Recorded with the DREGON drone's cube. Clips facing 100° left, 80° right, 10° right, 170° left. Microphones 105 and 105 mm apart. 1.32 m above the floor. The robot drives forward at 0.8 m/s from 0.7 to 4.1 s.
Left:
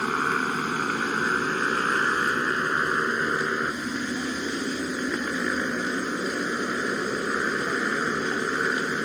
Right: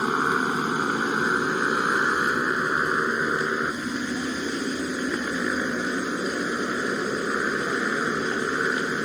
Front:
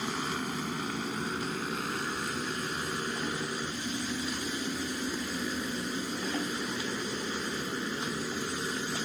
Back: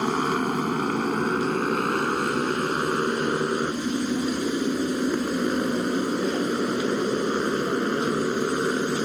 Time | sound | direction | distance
0.0 | a motorcycle | 155° right | ?